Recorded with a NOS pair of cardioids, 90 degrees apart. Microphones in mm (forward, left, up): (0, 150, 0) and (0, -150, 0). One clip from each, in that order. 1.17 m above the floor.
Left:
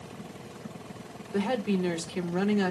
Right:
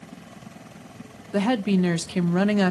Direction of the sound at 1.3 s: 40° right.